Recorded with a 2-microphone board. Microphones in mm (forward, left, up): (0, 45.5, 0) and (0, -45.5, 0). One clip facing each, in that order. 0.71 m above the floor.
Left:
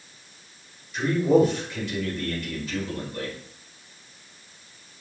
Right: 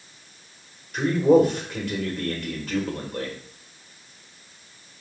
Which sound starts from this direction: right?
A man speaking, at 0.9 s.